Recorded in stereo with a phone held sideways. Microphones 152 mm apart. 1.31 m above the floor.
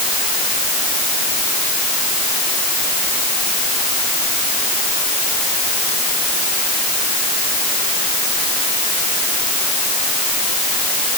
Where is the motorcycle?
I don't hear a motorcycle.